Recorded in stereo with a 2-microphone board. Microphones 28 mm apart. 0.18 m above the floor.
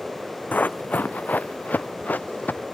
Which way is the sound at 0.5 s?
80° left.